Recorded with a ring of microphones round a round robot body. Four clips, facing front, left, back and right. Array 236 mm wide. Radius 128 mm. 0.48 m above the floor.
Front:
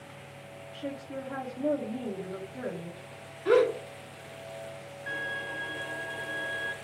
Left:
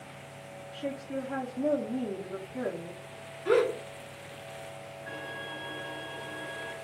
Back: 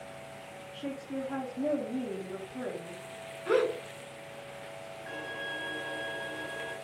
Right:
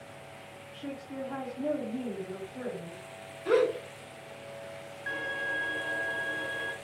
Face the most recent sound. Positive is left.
turn(degrees=-75)